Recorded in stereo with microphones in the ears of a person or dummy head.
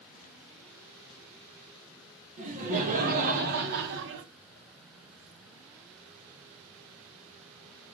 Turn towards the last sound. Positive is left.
turn(degrees=-65)  # may be behind; listen again after turning